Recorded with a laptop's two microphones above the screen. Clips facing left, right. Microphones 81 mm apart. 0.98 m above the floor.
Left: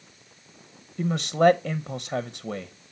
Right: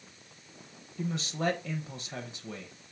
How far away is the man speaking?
About 0.6 m.